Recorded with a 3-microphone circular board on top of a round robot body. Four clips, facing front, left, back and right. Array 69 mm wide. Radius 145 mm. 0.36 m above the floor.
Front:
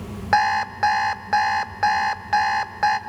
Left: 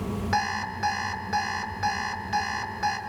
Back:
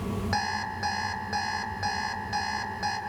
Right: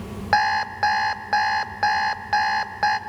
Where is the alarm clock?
45° right, 1.8 m.